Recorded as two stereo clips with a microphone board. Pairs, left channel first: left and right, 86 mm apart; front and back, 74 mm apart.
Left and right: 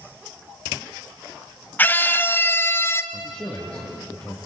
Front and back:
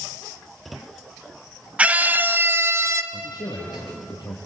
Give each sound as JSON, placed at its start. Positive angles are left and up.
{"t": 1.8, "sound": "a scream", "azimuth_deg": 130, "distance_m": 1.1}
{"t": 3.1, "sound": "a man speaking", "azimuth_deg": 25, "distance_m": 5.5}